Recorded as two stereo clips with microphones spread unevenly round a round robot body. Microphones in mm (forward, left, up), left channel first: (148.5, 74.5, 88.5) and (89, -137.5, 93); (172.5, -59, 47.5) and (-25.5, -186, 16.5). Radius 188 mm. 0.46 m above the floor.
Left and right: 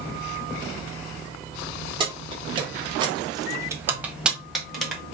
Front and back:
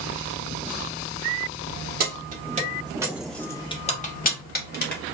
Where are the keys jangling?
170° right, 1.1 m; by 5.0 s 15° right, 1.4 m.